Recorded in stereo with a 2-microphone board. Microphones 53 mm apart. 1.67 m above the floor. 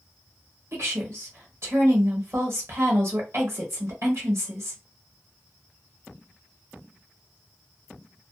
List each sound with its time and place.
0.7 s a woman speaking: 55° right (ahead or behind), 1.2 m